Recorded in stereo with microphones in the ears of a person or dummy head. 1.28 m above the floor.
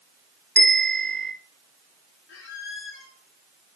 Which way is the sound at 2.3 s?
70° left (ahead or behind).